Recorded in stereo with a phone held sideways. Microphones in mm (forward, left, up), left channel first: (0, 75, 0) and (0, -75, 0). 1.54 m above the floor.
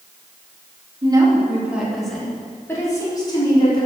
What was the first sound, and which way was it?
A woman speaking, 30° right (ahead or behind).